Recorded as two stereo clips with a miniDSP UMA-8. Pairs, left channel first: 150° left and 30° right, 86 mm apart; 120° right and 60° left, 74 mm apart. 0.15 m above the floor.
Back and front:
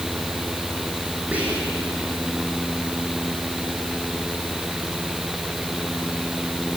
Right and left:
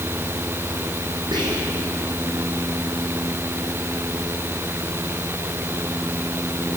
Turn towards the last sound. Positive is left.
turn(degrees=45)